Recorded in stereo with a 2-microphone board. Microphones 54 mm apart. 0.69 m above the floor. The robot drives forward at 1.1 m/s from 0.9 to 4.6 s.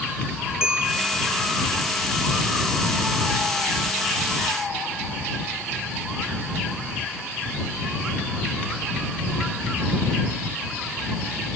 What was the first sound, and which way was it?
A bell, 10° right (ahead or behind).